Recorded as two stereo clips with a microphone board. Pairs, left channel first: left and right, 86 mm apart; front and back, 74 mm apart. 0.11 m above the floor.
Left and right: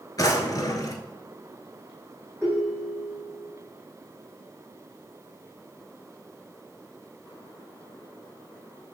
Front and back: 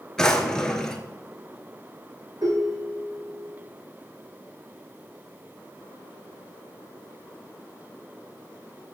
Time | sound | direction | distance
0.2 | a drawer | 80° left | 0.8 m
2.4 | a ringtone | 165° left | 3.5 m